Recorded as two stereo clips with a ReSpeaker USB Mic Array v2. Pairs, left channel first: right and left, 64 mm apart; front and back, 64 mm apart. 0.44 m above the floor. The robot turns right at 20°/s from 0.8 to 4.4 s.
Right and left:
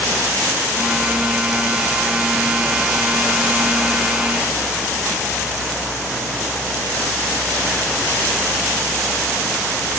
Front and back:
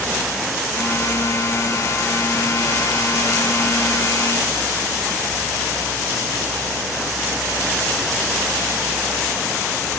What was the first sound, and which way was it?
Only background noise.